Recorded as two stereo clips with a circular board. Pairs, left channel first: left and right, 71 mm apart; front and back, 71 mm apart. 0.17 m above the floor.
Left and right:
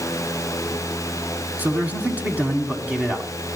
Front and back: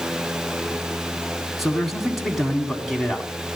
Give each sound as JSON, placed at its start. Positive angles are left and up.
{"t": 1.6, "sound": "a man speaking", "azimuth_deg": -95, "distance_m": 1.6}